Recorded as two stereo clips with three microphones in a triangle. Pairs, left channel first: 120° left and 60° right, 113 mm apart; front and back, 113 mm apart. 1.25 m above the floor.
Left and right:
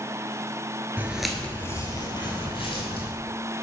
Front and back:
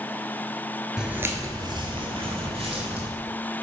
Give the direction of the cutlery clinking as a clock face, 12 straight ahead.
No cutlery clinking in this recording.